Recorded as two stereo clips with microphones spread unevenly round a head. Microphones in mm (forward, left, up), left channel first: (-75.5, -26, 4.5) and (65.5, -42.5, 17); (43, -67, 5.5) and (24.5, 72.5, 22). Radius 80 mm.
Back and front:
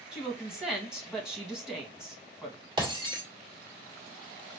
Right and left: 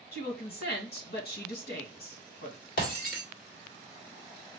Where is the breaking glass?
60° right, 1.9 m.